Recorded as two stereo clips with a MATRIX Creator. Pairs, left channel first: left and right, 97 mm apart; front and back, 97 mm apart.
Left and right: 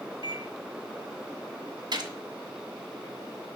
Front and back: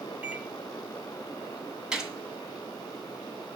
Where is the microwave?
115° right, 1.7 m.